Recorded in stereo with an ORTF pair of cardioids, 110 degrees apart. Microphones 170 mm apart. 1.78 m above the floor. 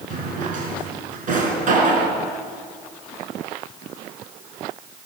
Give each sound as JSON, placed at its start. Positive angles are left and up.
{"t": 0.1, "sound": "a drawer", "azimuth_deg": -50, "distance_m": 5.5}